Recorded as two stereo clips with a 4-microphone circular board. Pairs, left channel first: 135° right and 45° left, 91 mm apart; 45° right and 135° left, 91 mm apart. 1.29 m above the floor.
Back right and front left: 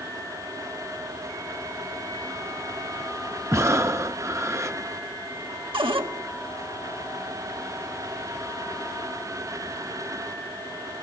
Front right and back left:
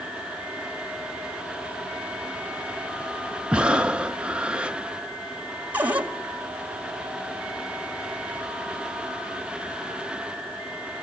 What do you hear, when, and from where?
3.5 s breathing: 65° left, 0.6 m
5.7 s a cupboard door: 60° left, 1.6 m